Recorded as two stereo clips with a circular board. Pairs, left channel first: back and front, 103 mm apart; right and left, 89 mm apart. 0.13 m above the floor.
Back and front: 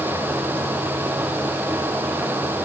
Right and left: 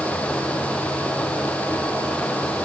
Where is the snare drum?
No snare drum in this recording.